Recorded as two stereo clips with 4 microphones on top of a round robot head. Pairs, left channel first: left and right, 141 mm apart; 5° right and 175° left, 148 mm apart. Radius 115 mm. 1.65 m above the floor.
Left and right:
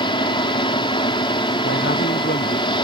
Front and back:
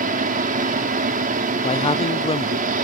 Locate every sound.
0.0 s an engine running: 145° left
1.6 s a man speaking: 50° left